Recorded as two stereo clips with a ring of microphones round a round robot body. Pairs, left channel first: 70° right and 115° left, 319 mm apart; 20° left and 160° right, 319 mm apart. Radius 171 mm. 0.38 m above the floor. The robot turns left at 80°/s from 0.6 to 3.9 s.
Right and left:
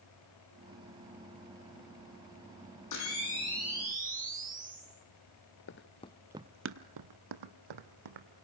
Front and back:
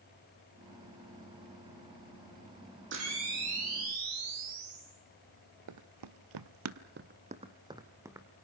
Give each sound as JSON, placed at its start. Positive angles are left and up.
{"t": 2.9, "sound": "a camera shutter", "azimuth_deg": -100, "distance_m": 6.5}
{"t": 5.7, "sound": "running footsteps", "azimuth_deg": -120, "distance_m": 0.8}